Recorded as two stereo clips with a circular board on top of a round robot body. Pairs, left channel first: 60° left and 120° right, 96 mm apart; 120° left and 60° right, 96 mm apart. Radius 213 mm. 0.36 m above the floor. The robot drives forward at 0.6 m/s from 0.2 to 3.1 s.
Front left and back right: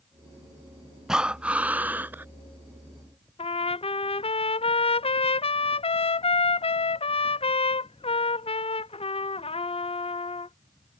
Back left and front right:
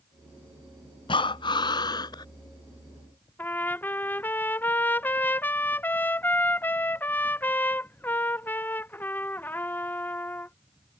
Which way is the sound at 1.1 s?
155° left.